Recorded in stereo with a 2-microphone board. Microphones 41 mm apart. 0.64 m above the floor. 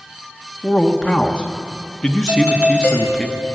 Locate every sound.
0.6 s a man speaking: 15° left (ahead or behind), 0.9 m
2.3 s a doorbell: 65° right (ahead or behind), 2.5 m